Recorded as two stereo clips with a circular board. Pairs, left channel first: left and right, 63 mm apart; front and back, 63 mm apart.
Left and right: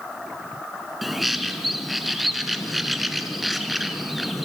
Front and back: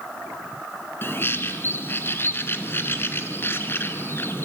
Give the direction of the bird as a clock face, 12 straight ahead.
12 o'clock.